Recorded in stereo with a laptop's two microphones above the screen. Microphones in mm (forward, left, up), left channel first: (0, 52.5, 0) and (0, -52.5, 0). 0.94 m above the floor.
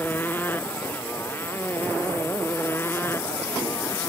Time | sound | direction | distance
0.0 | a motorcycle | 20° left (ahead or behind) | ?